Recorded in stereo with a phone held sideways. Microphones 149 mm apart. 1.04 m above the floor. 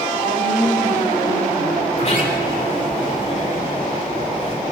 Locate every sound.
0.2 s a woman speaking: 85° right, 4.5 m
1.9 s a sliding door: 50° left (ahead or behind), 4.5 m